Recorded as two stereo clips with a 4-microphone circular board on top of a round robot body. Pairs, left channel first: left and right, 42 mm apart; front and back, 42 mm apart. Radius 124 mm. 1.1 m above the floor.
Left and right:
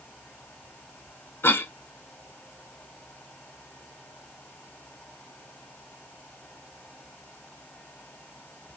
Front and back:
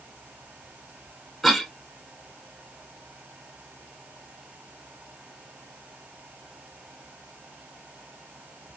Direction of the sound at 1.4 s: 95° left.